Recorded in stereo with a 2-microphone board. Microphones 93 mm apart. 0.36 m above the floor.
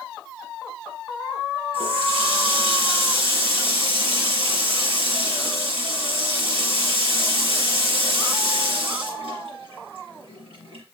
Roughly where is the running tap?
Left.